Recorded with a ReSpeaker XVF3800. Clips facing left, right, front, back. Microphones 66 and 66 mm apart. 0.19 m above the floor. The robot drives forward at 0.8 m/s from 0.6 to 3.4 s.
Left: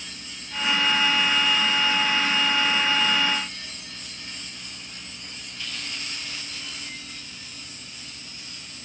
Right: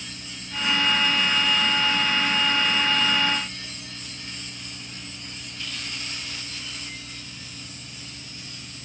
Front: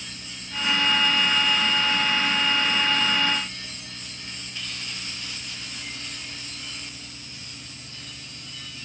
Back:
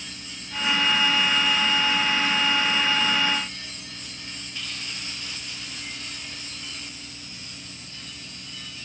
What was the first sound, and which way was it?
Only background noise.